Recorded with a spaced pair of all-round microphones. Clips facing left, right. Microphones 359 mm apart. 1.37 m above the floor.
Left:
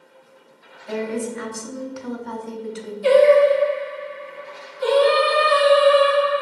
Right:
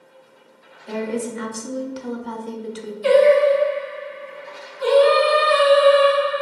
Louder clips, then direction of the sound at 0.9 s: Even; 50° right (ahead or behind).